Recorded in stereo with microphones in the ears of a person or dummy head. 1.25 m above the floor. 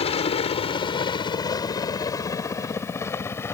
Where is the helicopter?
25° left (ahead or behind); by 3.5 s 10° left (ahead or behind).